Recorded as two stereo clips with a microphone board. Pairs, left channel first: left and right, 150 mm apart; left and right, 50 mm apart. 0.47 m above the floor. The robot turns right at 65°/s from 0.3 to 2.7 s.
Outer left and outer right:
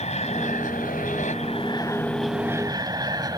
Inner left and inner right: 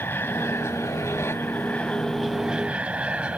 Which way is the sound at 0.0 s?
45° left (ahead or behind).